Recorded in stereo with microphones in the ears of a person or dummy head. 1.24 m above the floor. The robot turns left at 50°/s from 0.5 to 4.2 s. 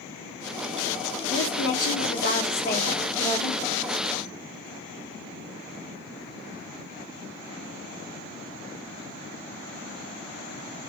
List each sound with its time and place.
1.3 s a woman speaking: 110° left, 1.3 m; by 3.5 s straight ahead, 1.3 m